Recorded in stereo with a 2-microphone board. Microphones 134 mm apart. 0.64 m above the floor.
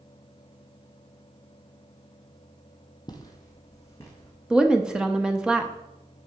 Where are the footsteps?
30° left (ahead or behind), 1.1 m; by 4.3 s 20° left (ahead or behind), 2.5 m.